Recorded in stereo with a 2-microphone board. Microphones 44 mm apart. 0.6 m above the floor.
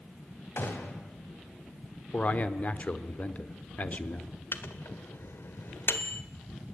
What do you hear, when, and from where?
0.6 s a gunshot: 55° left (ahead or behind), 4 m
2.1 s a man speaking: 30° left (ahead or behind), 1.3 m
4.5 s a microwave: 60° left (ahead or behind), 1.5 m